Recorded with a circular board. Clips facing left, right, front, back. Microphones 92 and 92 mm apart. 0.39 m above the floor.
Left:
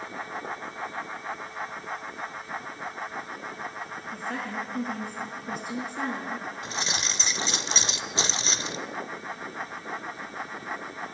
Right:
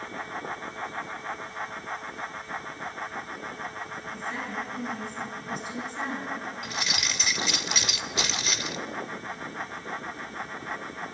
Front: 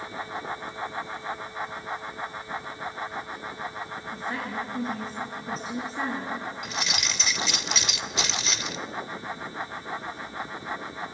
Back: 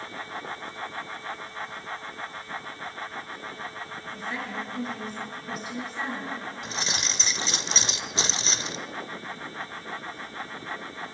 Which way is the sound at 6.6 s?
135° left.